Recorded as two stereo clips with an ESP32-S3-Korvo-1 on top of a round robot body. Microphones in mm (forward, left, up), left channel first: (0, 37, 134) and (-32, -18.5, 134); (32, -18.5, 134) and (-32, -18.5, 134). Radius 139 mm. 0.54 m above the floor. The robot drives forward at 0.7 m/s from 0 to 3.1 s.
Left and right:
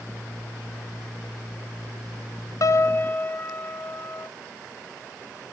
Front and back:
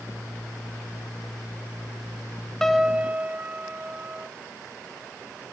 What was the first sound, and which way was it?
A piano, 80° left.